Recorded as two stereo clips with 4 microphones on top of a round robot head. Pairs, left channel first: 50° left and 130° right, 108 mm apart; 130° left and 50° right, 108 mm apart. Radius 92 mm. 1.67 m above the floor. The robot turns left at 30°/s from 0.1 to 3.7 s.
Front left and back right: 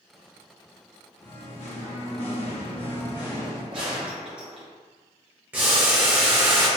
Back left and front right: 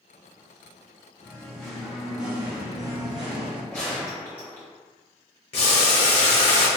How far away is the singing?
About 0.9 m.